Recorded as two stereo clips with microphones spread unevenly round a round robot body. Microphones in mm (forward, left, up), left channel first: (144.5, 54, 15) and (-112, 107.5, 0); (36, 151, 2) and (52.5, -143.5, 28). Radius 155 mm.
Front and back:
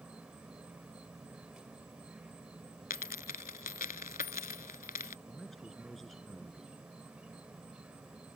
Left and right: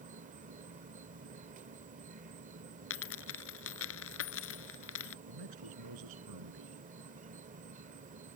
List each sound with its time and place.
0.0 s an insect: 115° right
2.9 s a dropped coin: 45° left
5.3 s a man speaking: 100° right